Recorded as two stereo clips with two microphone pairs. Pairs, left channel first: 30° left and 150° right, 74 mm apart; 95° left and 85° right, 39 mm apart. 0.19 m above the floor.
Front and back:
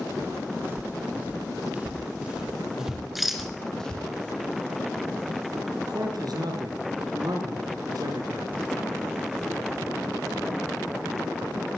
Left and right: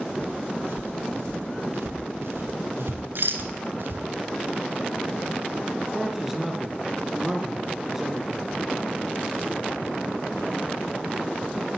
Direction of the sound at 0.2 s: 95° right.